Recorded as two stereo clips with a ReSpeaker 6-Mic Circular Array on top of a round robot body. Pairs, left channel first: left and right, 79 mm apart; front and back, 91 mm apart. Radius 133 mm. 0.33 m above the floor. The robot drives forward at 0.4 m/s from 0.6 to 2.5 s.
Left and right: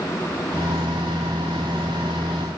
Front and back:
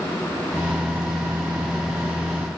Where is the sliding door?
I don't hear a sliding door.